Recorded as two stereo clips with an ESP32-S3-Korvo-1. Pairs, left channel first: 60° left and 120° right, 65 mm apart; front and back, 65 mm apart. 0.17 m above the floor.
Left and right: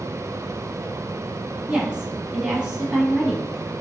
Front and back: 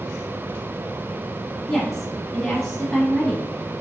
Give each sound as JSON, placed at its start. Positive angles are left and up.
{"t": 1.7, "sound": "a woman speaking", "azimuth_deg": -75, "distance_m": 1.0}